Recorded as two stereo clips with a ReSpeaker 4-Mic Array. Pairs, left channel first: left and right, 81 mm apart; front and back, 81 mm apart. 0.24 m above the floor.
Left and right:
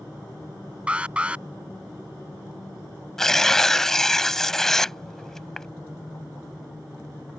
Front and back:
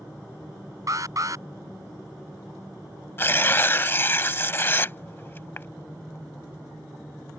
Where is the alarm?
160° right.